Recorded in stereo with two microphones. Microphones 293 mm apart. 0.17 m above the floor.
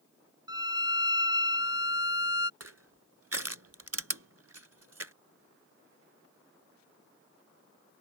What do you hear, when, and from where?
0.5 s a violin: 15° right (ahead or behind)
2.6 s crushing: 55° right (ahead or behind)